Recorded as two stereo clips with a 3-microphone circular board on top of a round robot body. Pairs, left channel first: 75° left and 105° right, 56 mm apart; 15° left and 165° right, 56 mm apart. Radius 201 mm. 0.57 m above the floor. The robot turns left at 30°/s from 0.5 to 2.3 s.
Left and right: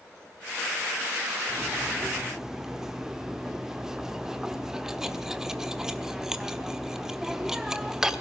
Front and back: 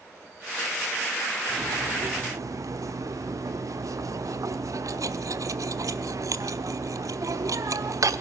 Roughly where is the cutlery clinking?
Behind.